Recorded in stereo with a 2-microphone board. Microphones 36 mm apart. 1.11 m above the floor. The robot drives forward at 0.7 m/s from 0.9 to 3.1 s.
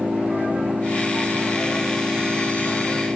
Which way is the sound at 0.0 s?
60° right (ahead or behind).